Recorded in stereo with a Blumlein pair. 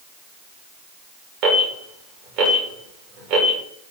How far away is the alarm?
About 3 m.